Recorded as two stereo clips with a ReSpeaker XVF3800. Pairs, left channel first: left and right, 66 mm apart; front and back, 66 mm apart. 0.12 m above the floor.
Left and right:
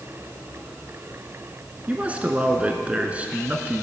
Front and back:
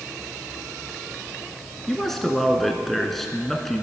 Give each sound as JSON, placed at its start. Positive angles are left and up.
{"t": 1.9, "sound": "a man speaking", "azimuth_deg": -80, "distance_m": 1.3}